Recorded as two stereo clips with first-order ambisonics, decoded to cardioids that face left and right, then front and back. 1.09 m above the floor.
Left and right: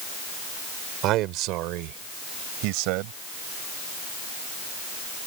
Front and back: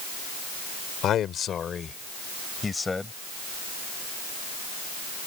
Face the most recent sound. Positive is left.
turn(degrees=-80)